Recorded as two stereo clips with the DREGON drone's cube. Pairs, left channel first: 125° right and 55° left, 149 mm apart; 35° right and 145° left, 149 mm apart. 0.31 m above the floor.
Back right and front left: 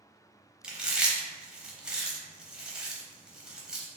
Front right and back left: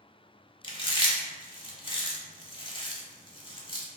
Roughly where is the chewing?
Ahead right.